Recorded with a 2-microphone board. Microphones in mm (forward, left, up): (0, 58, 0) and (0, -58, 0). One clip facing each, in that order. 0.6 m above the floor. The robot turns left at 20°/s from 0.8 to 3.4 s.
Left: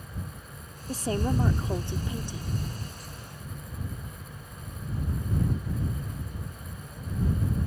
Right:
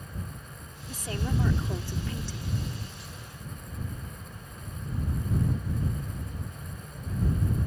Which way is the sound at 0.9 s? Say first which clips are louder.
Left 5 dB; 50° left.